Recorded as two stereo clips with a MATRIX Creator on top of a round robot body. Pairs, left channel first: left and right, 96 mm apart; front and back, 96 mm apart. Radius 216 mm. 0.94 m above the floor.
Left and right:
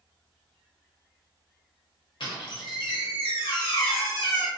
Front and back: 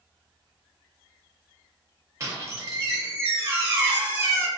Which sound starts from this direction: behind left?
A squeak, at 2.2 s.